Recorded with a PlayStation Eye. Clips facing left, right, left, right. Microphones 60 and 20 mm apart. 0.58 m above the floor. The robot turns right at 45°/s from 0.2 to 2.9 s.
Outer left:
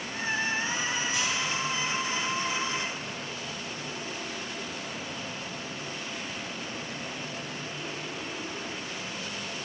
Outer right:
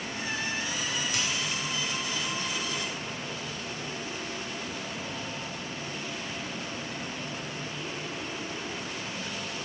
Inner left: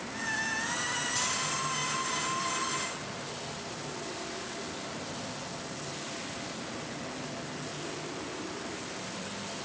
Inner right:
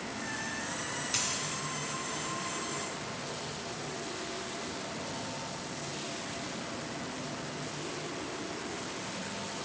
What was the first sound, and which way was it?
A dropped coin, 75° right (ahead or behind).